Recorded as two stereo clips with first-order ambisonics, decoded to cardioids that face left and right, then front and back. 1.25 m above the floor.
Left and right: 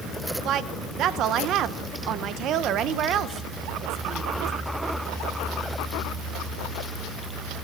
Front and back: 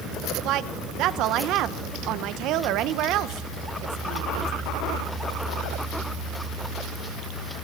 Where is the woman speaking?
140° right, 0.7 m.